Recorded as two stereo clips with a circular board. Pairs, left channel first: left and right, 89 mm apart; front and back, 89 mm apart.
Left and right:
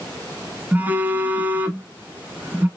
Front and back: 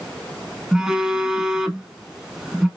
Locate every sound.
0.7 s a phone buzzing: 110° right, 0.6 m